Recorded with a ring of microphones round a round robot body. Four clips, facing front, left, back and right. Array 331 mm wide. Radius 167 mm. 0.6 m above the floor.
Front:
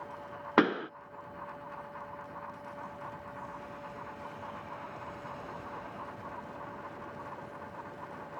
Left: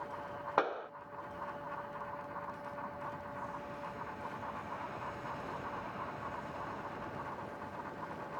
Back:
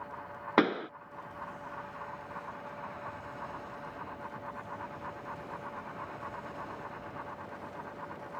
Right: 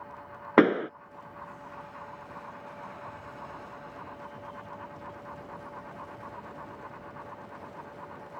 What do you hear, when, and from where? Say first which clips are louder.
0.6 s a pop: right 13 dB, front 1 dB; 80° right